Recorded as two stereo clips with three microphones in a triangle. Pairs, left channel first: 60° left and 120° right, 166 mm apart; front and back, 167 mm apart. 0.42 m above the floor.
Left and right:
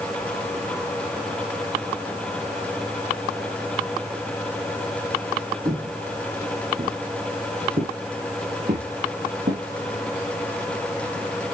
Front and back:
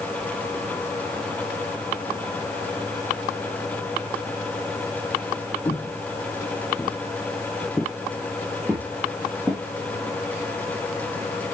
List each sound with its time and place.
5.7 s footsteps: 70° right, 0.8 m; by 9.6 s 100° right, 3 m